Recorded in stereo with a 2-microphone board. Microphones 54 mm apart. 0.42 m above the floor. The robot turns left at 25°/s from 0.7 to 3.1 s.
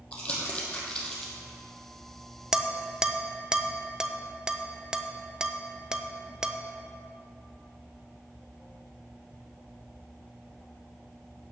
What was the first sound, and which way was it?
Crumpling, 20° left (ahead or behind).